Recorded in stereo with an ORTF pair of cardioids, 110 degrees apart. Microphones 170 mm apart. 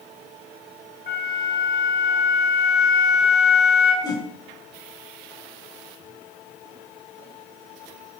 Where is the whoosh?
20° left, 2.0 m.